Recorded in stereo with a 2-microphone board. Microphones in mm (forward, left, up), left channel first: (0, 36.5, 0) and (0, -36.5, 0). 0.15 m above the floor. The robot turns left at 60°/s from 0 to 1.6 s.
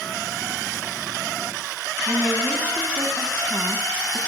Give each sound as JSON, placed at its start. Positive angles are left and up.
{"t": 2.1, "sound": "a woman speaking", "side_deg": -25, "distance_m": 1.1}